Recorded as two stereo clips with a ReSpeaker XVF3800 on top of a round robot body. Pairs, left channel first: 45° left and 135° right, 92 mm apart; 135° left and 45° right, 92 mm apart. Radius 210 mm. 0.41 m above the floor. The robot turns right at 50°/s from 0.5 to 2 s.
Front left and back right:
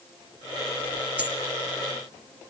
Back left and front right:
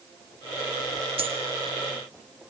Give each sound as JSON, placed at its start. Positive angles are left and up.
{"t": 1.2, "sound": "a dropped coin", "azimuth_deg": -60, "distance_m": 6.0}